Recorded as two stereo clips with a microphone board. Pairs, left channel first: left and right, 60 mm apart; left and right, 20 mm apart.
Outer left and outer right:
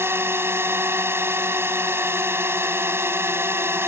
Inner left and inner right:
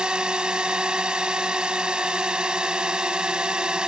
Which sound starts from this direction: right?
A drone, at 0.0 s.